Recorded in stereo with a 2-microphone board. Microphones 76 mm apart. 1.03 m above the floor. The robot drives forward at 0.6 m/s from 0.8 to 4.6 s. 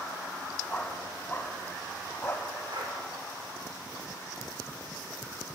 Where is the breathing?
75° right (ahead or behind), 4 m; by 3.0 s 70° right (ahead or behind), 4 m.